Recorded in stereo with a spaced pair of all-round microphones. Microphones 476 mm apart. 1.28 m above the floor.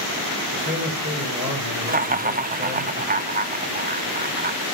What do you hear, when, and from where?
0.5 s a man speaking: 25° right (ahead or behind), 4.5 m
1.9 s laughter: 20° right (ahead or behind), 0.5 m